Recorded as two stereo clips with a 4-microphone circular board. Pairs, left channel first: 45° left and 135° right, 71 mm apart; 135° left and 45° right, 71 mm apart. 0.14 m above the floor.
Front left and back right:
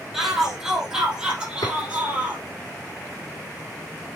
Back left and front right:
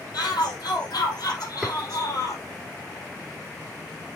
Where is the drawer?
40° left, 4 m.